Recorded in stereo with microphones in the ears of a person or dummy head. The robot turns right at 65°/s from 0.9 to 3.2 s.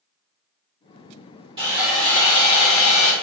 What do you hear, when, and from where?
1.6 s sawing: 25° right, 1.2 m; by 3.1 s 75° left, 1.2 m